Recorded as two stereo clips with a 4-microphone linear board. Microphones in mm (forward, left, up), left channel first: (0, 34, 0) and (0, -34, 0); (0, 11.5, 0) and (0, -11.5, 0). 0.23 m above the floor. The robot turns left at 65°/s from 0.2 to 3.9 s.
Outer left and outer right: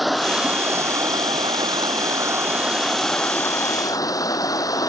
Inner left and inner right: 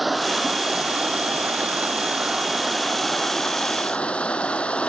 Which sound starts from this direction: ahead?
Running water, at 0.0 s.